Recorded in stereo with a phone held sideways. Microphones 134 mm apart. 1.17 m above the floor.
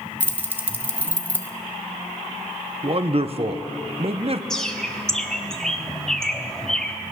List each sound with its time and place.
0.2 s keys jangling: 15° right (ahead or behind), 0.9 m
2.8 s a man speaking: 45° right (ahead or behind), 0.6 m
4.5 s a bird: 5° left (ahead or behind), 0.8 m